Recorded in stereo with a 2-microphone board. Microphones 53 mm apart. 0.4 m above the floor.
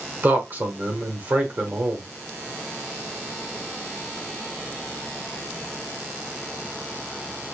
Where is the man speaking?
40° right (ahead or behind), 1.3 m.